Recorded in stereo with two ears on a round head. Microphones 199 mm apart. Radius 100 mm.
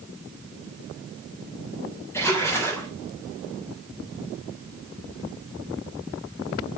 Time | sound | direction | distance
2.1 | a splash | 10° left (ahead or behind) | 4 m